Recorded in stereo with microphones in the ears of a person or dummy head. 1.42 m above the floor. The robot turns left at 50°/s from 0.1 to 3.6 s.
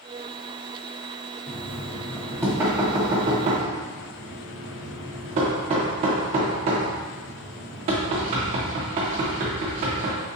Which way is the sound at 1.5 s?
10° left (ahead or behind).